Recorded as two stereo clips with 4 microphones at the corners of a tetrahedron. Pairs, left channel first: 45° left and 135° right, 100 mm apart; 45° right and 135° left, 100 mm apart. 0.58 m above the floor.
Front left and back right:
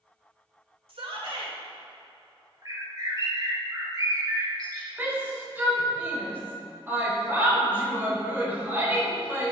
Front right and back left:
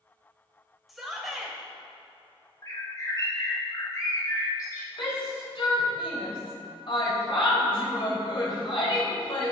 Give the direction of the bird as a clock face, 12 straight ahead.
3 o'clock.